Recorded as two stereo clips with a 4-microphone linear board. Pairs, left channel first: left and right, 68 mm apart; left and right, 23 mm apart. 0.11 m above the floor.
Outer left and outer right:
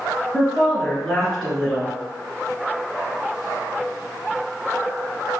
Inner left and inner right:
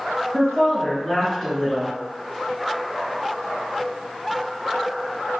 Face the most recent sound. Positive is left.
turn(degrees=5)  # may be behind; listen again after turning